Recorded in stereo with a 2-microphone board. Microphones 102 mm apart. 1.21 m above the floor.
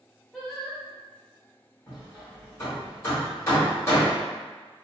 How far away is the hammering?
About 1.5 m.